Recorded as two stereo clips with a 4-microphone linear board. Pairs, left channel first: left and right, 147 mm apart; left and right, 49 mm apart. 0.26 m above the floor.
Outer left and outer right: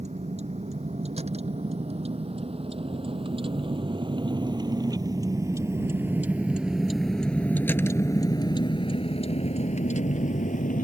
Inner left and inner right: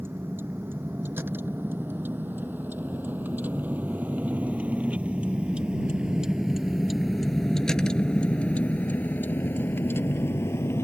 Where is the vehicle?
50° right (ahead or behind); by 10.8 s 65° left (ahead or behind).